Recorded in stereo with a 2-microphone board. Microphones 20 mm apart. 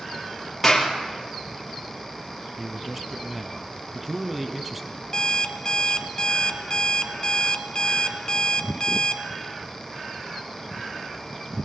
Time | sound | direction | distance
0.6 | a clap | 10° left (ahead or behind) | 3 m
2.6 | a man speaking | 10° right (ahead or behind) | 1.1 m
5.1 | an alarm clock | 35° left (ahead or behind) | 1.0 m